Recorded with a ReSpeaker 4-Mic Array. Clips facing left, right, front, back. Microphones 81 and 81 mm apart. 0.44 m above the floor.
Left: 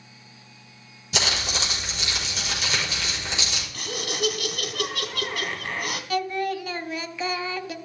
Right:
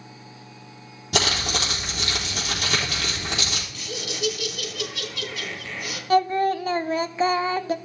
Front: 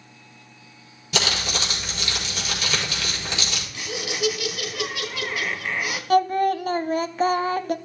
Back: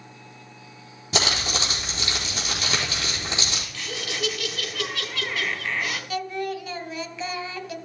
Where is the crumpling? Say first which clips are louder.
Right 3 dB, even; 125° right, 4 m.